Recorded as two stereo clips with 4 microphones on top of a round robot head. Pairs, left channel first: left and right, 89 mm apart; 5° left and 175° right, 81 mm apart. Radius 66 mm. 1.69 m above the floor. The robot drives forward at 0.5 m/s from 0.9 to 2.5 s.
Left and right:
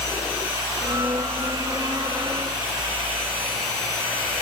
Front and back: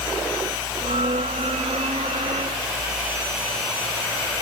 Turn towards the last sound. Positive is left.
No sound to turn to.